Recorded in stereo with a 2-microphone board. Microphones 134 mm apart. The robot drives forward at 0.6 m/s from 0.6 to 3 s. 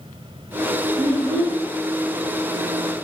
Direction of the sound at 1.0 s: 30° right (ahead or behind).